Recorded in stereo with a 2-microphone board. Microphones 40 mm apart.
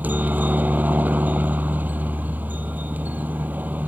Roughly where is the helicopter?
Right.